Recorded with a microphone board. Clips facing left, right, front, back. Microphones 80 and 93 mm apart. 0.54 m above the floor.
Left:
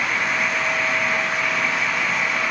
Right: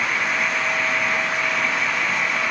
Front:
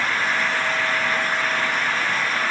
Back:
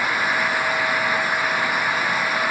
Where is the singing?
I don't hear singing.